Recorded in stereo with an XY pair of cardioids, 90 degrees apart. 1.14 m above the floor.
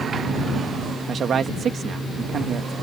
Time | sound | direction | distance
1.1 | a man speaking | 60° right | ?